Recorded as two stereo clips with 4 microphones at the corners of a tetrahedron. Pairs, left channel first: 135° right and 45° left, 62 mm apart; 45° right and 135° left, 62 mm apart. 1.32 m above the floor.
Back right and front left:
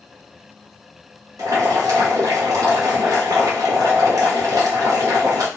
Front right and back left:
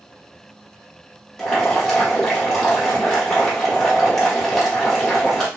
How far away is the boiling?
About 0.9 m.